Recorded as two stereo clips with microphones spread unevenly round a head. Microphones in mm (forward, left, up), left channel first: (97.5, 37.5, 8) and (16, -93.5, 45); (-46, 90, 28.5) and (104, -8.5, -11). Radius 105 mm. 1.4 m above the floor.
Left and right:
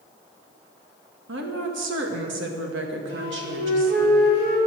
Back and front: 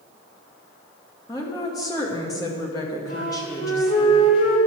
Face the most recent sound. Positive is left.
turn(degrees=-170)